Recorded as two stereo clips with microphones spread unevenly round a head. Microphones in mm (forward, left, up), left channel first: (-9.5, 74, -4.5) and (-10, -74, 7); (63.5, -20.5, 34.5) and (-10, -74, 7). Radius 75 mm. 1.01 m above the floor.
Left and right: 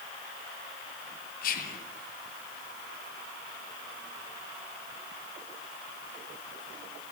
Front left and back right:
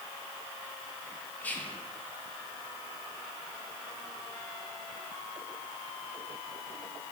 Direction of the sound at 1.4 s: 120° left.